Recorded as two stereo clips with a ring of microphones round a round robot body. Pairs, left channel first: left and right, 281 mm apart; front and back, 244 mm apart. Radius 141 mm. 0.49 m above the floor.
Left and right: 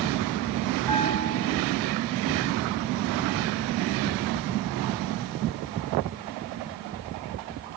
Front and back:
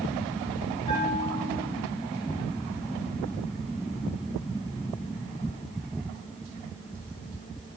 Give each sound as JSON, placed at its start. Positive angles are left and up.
{"t": 0.9, "sound": "a bell", "azimuth_deg": -75, "distance_m": 4.0}